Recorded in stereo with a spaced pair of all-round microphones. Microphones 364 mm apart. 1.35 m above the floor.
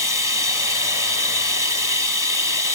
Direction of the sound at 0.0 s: 60° left (ahead or behind).